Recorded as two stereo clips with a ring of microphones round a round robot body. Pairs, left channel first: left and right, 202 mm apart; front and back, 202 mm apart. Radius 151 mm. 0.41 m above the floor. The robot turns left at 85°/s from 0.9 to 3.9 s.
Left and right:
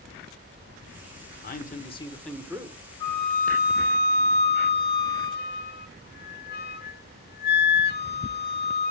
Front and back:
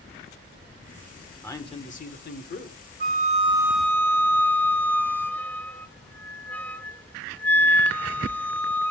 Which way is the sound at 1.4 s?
75° left.